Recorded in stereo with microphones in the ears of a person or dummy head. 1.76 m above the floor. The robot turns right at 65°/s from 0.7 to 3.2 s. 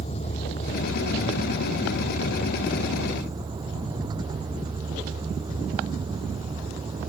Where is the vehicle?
40° left (ahead or behind); by 7.1 s 20° right (ahead or behind).